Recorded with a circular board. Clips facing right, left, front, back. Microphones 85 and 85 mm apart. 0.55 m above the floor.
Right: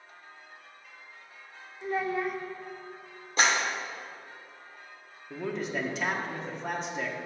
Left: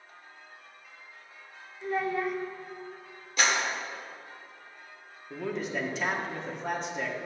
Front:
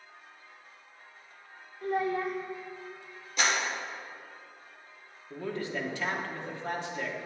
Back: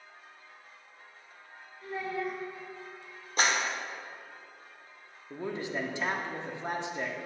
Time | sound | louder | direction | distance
1.8 | a child speaking | even, front 5 dB | 5° right | 0.9 m
3.4 | a clap | right 2 dB, back 1 dB | 140° right | 1.3 m
5.3 | a man speaking | even, even | 175° right | 0.8 m